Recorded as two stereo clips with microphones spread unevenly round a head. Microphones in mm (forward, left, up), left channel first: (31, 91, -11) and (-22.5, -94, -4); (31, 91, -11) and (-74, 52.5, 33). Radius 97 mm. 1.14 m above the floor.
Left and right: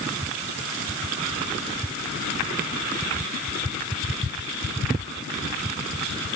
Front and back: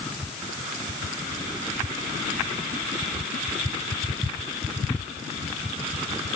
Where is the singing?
No singing in this recording.